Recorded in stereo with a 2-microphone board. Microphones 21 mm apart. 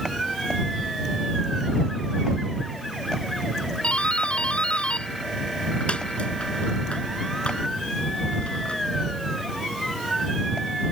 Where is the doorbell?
65° left (ahead or behind).